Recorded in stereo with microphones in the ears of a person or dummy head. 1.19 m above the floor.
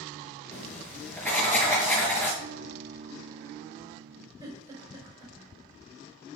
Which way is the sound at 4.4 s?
20° right (ahead or behind).